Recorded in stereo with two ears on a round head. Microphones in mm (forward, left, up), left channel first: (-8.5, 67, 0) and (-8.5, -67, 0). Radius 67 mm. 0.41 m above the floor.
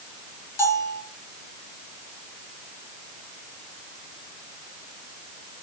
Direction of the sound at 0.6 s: 15° left (ahead or behind).